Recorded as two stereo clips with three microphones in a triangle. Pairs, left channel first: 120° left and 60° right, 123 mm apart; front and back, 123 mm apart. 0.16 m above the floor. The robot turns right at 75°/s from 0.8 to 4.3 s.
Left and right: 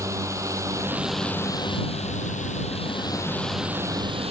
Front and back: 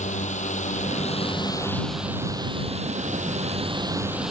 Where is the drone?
5° left; by 4.3 s 95° right.